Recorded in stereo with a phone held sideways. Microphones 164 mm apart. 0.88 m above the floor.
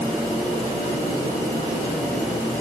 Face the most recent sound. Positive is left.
No sound to turn to.